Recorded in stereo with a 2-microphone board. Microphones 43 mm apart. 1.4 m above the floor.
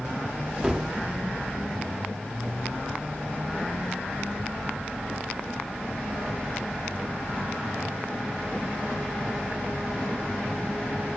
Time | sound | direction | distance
0.6 | a gunshot | 15° right (ahead or behind) | 1.1 m